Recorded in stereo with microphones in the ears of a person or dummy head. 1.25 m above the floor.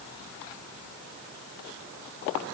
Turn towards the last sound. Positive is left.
No sound to turn to.